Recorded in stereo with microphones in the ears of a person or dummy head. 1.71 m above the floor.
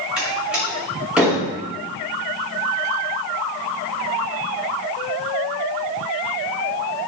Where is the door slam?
5° right (ahead or behind), 2 m.